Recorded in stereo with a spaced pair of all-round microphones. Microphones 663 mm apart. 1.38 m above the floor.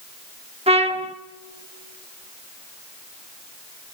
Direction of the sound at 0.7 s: 10° right (ahead or behind).